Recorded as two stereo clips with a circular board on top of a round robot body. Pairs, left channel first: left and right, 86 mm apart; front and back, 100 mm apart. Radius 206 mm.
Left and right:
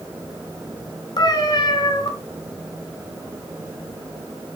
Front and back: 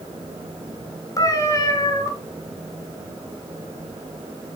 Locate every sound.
1.2 s a cat meowing: 55° left, 2.0 m